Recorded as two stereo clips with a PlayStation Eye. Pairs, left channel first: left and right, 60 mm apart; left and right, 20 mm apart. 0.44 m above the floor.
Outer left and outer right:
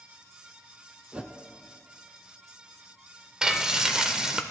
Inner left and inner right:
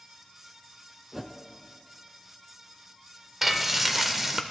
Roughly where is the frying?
Centre.